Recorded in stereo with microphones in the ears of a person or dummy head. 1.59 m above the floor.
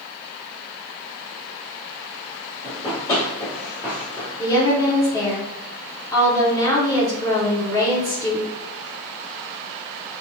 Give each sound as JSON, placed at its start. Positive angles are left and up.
{"t": 2.6, "sound": "running footsteps", "side_deg": 35, "distance_m": 2.0}
{"t": 4.4, "sound": "a woman speaking", "side_deg": 20, "distance_m": 0.7}